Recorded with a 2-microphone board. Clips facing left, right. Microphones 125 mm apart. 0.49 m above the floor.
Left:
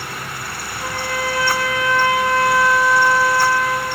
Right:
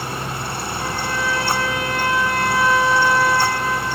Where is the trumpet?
45° right (ahead or behind), 3.5 m.